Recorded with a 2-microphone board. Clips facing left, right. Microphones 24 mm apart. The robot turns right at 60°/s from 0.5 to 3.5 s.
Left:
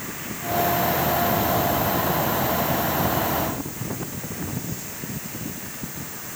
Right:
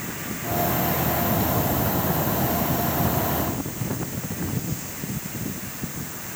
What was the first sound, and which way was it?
Only background noise.